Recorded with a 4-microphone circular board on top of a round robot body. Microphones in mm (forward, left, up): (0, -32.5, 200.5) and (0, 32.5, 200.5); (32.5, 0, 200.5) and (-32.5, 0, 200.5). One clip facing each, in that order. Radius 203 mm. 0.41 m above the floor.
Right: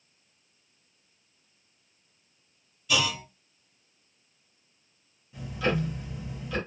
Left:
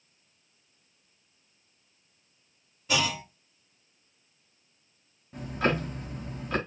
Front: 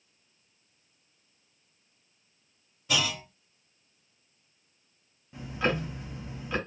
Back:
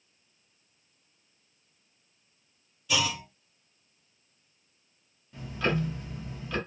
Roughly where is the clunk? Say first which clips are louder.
Even, back 1 dB; ahead left.